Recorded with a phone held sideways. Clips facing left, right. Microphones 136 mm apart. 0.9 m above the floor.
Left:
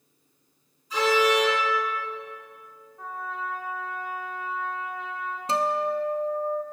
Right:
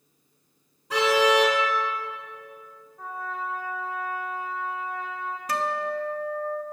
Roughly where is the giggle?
No giggle in this recording.